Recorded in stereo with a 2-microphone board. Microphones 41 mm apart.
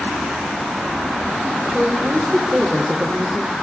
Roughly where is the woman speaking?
Centre.